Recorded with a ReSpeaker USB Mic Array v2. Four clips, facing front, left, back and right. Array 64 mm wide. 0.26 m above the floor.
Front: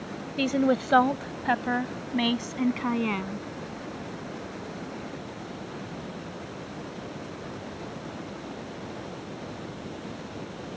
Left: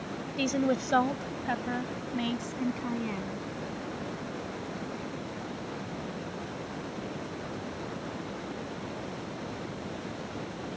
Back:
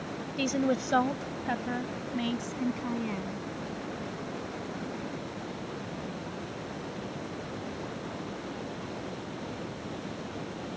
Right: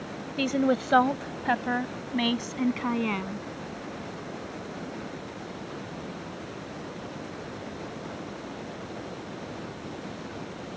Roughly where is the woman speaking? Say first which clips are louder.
Right 3 dB, front 5 dB; ahead right.